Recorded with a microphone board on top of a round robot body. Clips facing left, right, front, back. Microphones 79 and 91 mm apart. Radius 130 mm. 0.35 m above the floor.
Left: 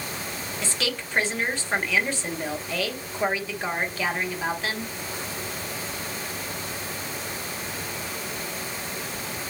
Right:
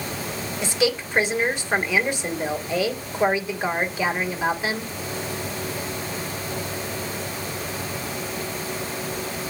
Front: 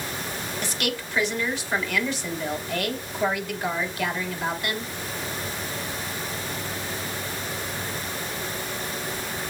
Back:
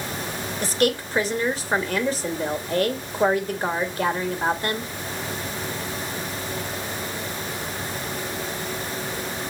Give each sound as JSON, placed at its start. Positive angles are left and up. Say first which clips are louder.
{"t": 0.6, "sound": "a woman speaking", "louder": "right 9 dB, back 10 dB", "azimuth_deg": -155, "distance_m": 1.8}